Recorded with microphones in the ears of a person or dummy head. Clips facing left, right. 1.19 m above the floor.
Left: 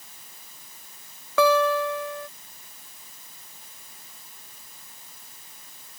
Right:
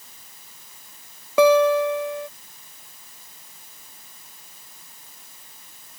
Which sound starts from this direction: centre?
A guitar, at 1.4 s.